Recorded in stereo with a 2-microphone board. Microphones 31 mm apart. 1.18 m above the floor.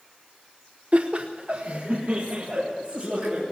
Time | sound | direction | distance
0.9 | laughter | 45° right (ahead or behind) | 0.7 m